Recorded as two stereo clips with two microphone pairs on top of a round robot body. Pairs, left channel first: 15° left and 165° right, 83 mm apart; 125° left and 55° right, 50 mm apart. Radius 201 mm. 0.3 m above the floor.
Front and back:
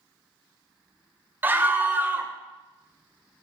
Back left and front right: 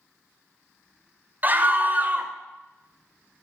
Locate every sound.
1.4 s a scream: 100° right, 2 m